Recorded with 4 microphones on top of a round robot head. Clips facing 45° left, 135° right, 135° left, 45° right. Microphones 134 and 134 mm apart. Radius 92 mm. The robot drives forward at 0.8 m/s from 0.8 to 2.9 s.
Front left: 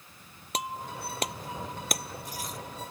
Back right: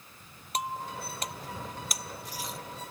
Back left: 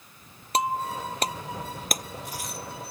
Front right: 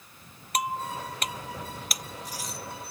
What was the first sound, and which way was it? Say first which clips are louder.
Breaking glass: back right 1 dB, back left 4 dB; 70° left.